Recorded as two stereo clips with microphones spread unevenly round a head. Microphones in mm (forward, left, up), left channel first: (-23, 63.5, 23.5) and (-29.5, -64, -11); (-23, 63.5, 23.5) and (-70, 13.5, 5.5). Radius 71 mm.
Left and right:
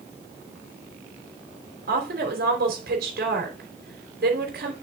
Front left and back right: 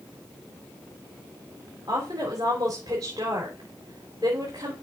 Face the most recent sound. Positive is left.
turn(degrees=-70)